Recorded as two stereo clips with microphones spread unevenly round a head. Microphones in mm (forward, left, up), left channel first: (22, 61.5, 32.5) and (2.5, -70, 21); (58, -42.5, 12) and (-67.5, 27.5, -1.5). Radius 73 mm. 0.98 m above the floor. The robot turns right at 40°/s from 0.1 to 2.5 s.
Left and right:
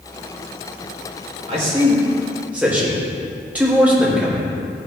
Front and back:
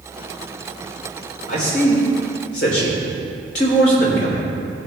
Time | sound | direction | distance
1.5 | a man speaking | 60° right | 5 m